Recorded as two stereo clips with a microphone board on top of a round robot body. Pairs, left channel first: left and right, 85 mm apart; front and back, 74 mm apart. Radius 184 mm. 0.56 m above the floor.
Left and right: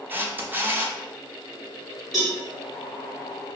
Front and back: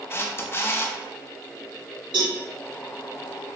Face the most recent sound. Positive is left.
turn(degrees=175)